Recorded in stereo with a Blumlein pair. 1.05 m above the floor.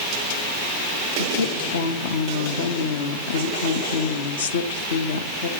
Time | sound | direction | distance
1.2 | a woman speaking | 65° left | 1.1 m